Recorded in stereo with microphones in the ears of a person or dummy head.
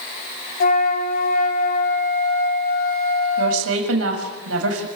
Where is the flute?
50° left (ahead or behind), 2 m.